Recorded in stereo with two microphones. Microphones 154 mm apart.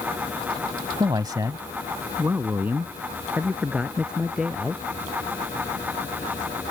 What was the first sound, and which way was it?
A man speaking, 25° right (ahead or behind).